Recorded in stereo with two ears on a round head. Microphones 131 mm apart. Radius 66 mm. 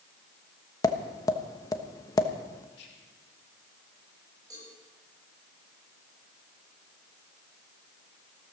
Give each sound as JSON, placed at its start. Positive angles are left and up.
{"t": 0.8, "sound": "tapping", "side_deg": 25, "distance_m": 1.1}
{"t": 2.7, "sound": "whispering", "side_deg": 90, "distance_m": 3.0}
{"t": 4.5, "sound": "a cowbell", "side_deg": -25, "distance_m": 8.5}